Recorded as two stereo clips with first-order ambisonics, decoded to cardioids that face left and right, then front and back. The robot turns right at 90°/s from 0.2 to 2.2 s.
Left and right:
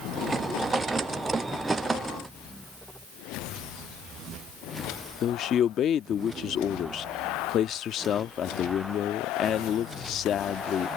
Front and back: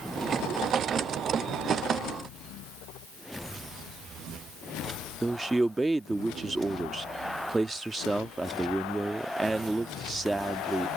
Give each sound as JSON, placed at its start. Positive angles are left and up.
{"t": 5.2, "sound": "a man speaking", "azimuth_deg": 105}